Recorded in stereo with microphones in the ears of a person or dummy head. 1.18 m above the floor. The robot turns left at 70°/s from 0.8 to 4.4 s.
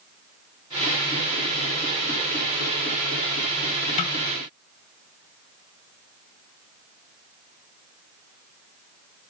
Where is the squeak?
I don't hear a squeak.